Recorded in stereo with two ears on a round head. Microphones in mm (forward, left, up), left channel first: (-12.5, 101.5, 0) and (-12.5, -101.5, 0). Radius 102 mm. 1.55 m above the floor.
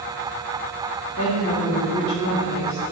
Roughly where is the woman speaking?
Left.